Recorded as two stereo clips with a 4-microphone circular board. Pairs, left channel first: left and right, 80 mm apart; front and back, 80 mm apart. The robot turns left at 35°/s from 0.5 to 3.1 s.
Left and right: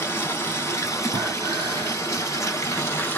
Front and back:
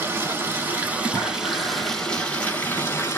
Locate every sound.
0.0 s running water: 130° left, 1.2 m; by 3.2 s 40° left, 1.2 m
1.1 s breathing: 60° right, 1.3 m; by 2.0 s 90° right, 1.3 m